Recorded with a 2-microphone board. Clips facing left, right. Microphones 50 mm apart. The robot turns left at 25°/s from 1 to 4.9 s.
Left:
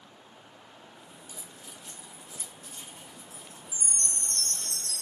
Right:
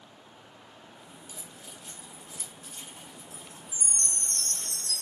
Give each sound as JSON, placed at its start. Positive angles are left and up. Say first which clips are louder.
{"t": 1.3, "sound": "keys jangling", "louder": "even", "side_deg": -55, "distance_m": 0.7}
{"t": 3.7, "sound": "a chime", "louder": "even", "azimuth_deg": -115, "distance_m": 1.8}